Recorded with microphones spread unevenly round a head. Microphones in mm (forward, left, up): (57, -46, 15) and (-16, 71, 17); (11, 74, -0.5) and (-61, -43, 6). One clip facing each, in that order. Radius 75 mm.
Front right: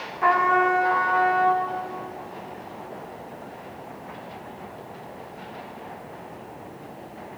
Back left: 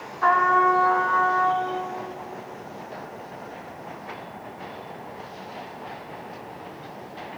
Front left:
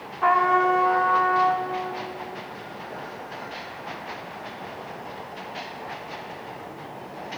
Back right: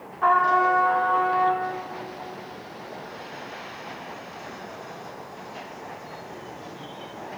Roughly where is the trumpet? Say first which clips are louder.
Even, even; ahead.